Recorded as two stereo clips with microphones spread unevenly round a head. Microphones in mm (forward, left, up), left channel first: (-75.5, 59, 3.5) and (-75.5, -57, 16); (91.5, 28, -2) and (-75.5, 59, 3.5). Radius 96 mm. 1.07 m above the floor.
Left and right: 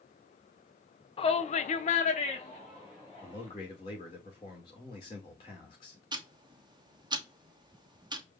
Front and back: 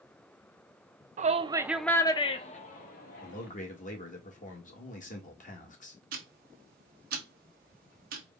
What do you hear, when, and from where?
1.2 s a shout: 125° left, 0.8 m; by 3.5 s 20° left, 1.8 m
3.2 s a man speaking: 30° left, 1.6 m
6.1 s ticking: 145° right, 0.9 m